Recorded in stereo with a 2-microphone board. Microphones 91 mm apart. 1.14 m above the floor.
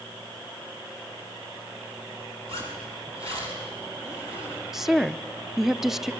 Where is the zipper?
75° right (ahead or behind), 7 m.